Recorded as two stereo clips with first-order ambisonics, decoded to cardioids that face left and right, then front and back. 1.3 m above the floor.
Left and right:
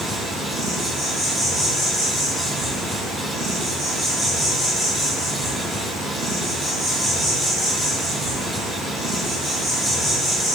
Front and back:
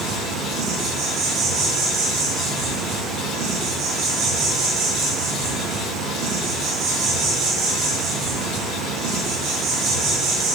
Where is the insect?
170° right, 0.8 m.